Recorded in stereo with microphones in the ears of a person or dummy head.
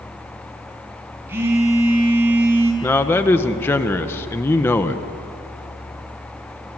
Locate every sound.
1.3 s a phone buzzing: 15° right (ahead or behind), 4.5 m
2.8 s a man speaking: 10° left (ahead or behind), 1.5 m